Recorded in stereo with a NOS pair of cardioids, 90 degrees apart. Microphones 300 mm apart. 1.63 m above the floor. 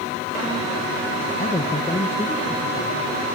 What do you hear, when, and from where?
1.4 s a man speaking: 20° left, 1.8 m